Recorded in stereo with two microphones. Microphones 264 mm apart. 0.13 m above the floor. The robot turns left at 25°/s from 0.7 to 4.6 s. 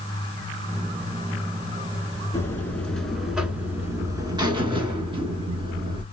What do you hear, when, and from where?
2.3 s a buzzer: 20° left, 0.8 m; by 6.0 s 35° right, 0.8 m